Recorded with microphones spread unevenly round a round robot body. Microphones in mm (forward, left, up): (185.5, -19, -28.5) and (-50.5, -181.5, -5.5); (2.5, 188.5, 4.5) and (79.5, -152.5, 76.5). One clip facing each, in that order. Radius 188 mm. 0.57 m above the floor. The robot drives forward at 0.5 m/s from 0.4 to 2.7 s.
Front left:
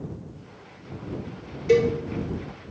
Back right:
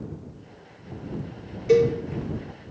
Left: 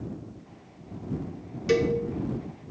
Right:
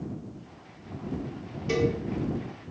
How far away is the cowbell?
About 1.9 m.